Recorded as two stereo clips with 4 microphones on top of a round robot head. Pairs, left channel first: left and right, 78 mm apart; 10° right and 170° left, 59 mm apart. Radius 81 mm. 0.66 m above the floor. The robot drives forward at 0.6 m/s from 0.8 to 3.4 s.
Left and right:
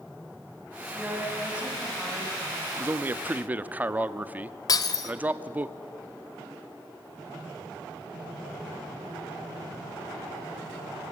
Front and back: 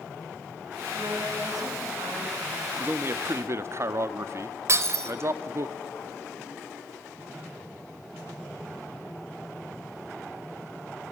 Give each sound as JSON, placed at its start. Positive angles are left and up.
{"t": 0.9, "sound": "a woman speaking", "azimuth_deg": -160, "distance_m": 5.0}
{"t": 2.8, "sound": "a man speaking", "azimuth_deg": -140, "distance_m": 0.7}
{"t": 4.7, "sound": "breaking glass", "azimuth_deg": 130, "distance_m": 1.5}